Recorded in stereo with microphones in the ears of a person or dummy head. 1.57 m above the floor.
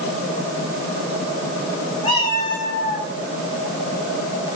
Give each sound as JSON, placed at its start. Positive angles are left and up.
{"t": 2.0, "sound": "a cat meowing", "side_deg": 30, "distance_m": 6.0}